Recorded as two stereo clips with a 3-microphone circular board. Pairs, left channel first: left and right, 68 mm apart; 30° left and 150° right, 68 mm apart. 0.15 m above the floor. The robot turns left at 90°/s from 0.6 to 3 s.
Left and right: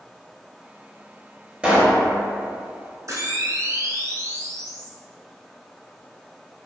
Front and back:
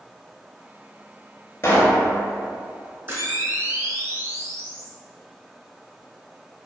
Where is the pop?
20° right, 0.7 m; by 2.0 s 55° right, 0.7 m.